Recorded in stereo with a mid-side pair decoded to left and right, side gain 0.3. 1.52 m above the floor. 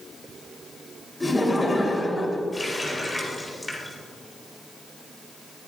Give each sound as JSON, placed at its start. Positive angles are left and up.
{"t": 1.2, "sound": "laughter", "azimuth_deg": 25, "distance_m": 3.5}
{"t": 2.5, "sound": "a running tap", "azimuth_deg": 30, "distance_m": 3.5}